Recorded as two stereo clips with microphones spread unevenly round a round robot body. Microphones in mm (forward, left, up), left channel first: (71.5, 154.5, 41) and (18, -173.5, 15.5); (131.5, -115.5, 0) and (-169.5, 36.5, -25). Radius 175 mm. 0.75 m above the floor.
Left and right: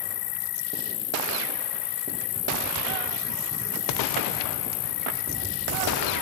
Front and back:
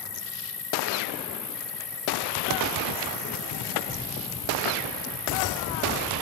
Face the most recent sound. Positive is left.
turn(degrees=55)